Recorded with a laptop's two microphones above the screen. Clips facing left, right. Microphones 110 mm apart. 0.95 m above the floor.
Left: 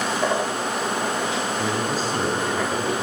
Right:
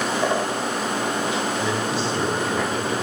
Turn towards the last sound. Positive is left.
turn(degrees=50)  # may be behind; listen again after turning